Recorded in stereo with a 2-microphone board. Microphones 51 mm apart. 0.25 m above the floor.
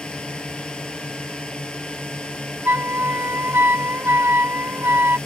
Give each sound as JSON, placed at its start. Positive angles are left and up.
{"t": 0.0, "sound": "a drone", "side_deg": 20}
{"t": 2.6, "sound": "a flute", "side_deg": -55}